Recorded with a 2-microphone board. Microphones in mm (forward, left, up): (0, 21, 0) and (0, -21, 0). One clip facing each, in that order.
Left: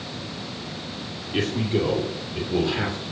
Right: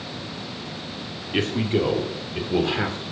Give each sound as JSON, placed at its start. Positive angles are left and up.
{"t": 1.3, "sound": "a man speaking", "side_deg": -35, "distance_m": 2.0}